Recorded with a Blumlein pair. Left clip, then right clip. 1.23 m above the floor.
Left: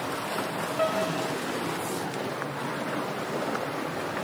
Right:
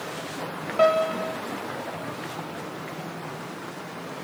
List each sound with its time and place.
0.8 s a piano: 70° right, 0.8 m